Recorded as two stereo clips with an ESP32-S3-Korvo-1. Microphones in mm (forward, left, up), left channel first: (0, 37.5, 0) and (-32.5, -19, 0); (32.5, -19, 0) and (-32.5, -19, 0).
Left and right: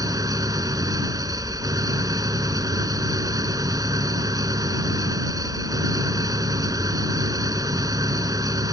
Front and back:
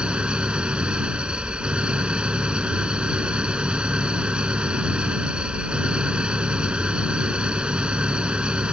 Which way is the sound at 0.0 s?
105° right.